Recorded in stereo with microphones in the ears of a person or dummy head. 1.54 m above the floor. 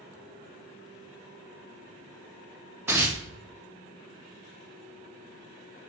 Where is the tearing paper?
10° right (ahead or behind), 0.6 m.